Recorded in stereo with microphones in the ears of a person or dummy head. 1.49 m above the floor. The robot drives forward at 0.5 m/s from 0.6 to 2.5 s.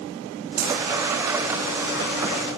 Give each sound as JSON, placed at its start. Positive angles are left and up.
{"t": 0.6, "sound": "a dropped coin", "side_deg": -55, "distance_m": 8.5}